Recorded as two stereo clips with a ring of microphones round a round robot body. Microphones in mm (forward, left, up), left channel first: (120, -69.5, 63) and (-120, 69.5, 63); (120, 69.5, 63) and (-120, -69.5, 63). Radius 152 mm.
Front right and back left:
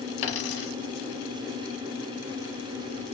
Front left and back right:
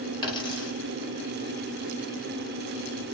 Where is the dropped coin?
45° right, 1.2 m.